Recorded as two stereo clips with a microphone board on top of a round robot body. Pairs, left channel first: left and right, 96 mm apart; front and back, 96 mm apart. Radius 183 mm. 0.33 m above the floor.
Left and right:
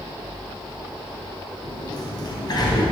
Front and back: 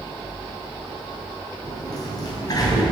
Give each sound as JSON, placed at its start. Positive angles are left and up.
{"t": 1.6, "sound": "a sliding door", "azimuth_deg": 45, "distance_m": 3.0}